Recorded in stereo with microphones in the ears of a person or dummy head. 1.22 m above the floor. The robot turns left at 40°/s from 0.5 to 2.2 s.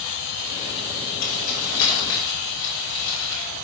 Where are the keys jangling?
35° left (ahead or behind), 2.5 m; by 3.4 s 70° left (ahead or behind), 2.5 m.